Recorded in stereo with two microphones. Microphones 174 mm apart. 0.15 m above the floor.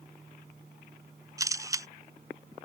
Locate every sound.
1.4 s a camera shutter: 20° right (ahead or behind)